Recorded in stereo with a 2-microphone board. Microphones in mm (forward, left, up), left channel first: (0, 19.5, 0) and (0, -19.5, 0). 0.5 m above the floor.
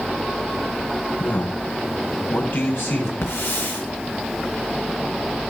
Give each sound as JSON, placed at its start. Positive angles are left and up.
{"t": 1.2, "sound": "a man speaking", "side_deg": 70, "distance_m": 4.0}
{"t": 3.2, "sound": "a hiss", "side_deg": 80, "distance_m": 4.5}